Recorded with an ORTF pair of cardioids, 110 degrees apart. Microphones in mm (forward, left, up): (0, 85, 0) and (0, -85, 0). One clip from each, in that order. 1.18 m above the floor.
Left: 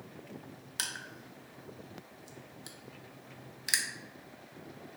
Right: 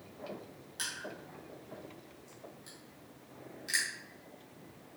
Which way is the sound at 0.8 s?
50° left.